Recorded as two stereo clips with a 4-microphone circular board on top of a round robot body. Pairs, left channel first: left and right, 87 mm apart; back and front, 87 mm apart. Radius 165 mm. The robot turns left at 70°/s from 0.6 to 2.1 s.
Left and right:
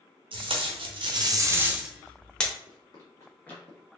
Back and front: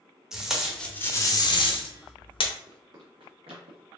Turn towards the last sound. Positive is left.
turn(degrees=-5)